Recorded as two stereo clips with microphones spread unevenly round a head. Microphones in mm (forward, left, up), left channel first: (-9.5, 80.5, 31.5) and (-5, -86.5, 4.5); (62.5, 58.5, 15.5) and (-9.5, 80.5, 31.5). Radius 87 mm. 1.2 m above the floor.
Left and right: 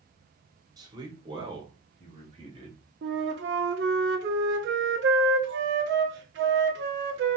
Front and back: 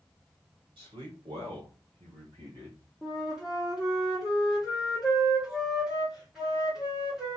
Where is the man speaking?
155° right, 3 m; by 2.8 s 145° right, 5 m.